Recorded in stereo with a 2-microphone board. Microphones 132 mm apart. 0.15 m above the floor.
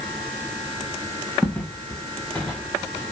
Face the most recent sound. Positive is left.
turn(degrees=20)  # may be behind; listen again after turning